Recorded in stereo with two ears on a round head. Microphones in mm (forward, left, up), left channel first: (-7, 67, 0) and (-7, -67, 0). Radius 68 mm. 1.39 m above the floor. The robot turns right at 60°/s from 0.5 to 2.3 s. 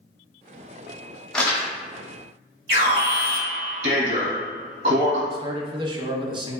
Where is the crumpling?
5° left (ahead or behind), 0.7 m; by 1.7 s 25° left (ahead or behind), 0.7 m.